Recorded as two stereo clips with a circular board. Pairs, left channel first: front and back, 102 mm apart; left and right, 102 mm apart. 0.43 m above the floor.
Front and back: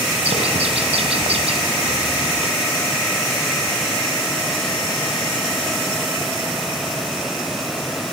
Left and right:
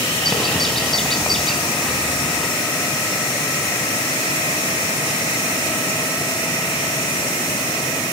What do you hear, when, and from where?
0.2 s a bird: 175° left, 2.5 m